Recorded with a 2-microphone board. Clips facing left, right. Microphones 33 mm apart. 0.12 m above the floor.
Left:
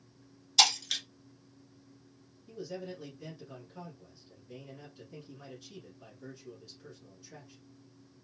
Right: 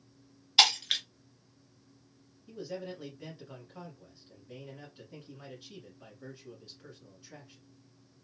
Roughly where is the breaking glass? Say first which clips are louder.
Right 2 dB; right.